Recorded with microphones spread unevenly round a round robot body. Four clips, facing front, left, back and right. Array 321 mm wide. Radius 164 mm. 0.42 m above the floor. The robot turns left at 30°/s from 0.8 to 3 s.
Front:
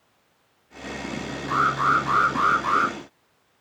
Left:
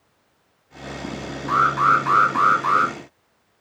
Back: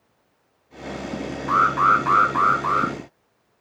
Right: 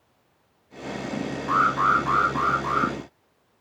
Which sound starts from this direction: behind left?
An alarm, at 1.5 s.